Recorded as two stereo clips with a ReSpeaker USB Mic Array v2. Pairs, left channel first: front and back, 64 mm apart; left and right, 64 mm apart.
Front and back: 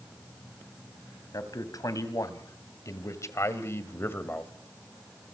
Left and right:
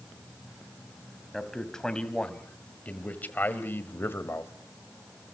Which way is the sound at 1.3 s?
5° left.